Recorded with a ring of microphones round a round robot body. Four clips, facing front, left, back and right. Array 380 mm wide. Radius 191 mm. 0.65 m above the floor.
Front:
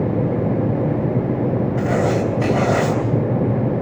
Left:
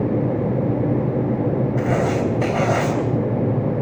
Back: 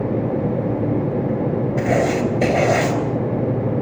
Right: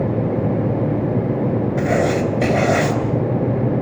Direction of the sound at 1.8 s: 140° right.